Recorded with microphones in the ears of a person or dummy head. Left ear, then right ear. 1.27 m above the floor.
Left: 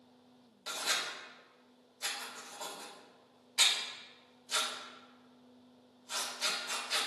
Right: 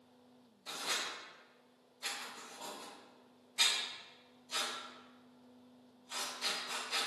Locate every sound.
0.7 s writing: 45° left (ahead or behind), 2.5 m